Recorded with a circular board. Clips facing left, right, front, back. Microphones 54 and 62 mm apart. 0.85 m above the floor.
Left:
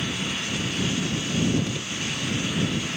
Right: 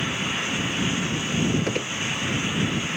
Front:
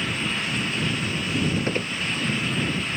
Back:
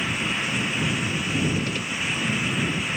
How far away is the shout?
I don't hear a shout.